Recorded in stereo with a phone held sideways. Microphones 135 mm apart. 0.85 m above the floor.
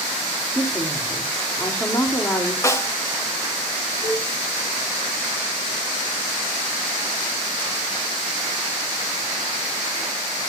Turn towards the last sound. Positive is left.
turn(degrees=-25)  # may be behind; listen again after turning